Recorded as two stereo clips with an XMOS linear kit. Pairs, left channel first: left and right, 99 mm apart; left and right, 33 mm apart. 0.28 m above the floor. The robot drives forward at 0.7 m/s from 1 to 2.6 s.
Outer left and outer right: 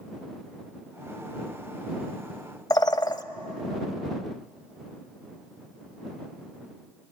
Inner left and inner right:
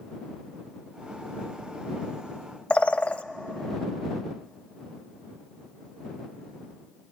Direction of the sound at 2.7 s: 45° left (ahead or behind).